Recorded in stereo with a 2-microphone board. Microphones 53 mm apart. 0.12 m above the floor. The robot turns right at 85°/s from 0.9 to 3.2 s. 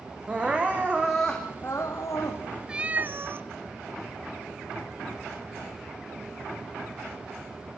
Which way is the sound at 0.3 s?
20° right.